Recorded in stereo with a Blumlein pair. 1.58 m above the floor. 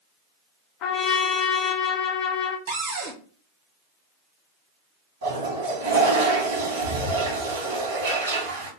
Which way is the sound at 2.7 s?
70° right.